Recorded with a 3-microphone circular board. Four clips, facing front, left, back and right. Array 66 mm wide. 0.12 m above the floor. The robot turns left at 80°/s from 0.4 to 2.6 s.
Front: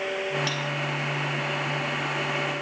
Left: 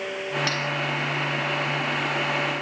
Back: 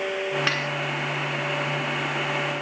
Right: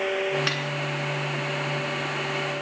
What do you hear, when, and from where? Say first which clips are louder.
0.5 s cutlery clinking: left 1 dB, back 4 dB; 165° right; by 0.7 s 175° left